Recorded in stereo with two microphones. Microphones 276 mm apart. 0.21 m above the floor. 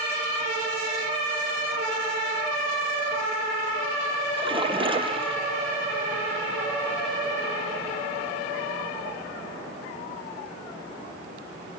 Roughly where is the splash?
Centre.